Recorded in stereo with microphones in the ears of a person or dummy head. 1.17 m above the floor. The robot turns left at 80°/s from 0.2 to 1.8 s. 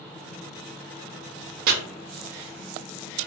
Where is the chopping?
55° right (ahead or behind), 0.5 m; by 1.7 s 60° right (ahead or behind), 0.5 m.